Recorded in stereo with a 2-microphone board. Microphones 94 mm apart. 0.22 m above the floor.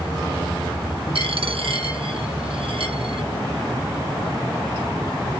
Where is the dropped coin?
80° right, 1.9 m.